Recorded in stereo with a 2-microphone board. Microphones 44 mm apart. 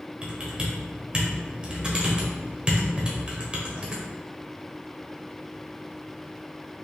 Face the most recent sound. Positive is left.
turn(degrees=-20)  # may be behind; listen again after turning